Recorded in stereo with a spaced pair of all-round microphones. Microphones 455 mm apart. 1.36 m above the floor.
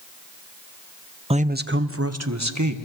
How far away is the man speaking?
About 0.6 m.